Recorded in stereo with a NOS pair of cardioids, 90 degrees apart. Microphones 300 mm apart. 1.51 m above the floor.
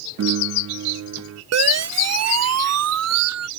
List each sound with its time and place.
0.2 s a piano: 60° right
1.5 s a siren: 65° right